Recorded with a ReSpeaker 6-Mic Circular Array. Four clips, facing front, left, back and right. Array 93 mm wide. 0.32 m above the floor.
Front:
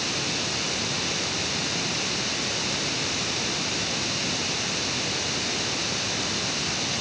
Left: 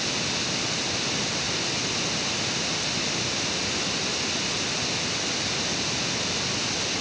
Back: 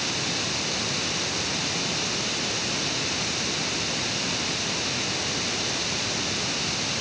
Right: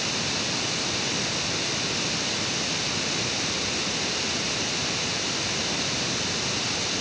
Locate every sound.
Only background noise.